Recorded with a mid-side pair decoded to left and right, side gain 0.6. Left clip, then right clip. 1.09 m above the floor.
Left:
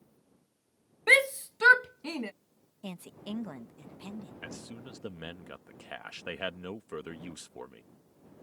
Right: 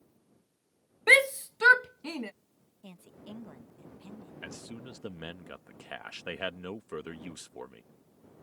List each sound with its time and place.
1.1 s a shout: 15° right; by 2.3 s 5° left
2.8 s a woman speaking: 45° left
4.4 s a man speaking: 5° right